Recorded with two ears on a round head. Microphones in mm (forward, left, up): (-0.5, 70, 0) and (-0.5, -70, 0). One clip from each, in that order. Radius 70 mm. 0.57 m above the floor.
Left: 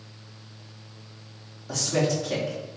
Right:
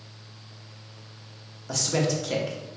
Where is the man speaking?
25° right (ahead or behind), 0.9 m.